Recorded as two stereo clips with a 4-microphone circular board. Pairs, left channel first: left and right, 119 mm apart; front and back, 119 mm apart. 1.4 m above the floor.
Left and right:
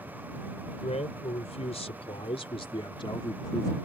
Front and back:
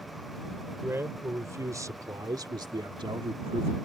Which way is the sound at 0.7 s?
110° left.